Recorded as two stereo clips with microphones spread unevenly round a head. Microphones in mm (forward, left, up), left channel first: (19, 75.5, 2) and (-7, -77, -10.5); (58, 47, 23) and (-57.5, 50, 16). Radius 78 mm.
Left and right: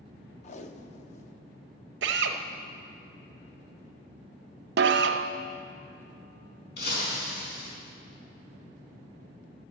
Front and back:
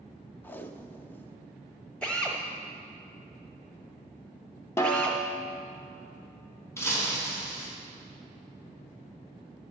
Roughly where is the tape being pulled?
Ahead left.